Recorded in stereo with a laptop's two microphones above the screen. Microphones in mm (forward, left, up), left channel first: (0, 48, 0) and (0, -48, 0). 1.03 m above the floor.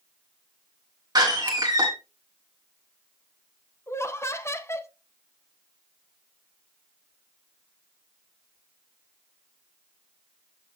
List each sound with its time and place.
1.1 s a door slam: 40° right (ahead or behind), 1.4 m
3.9 s laughter: 25° left (ahead or behind), 0.6 m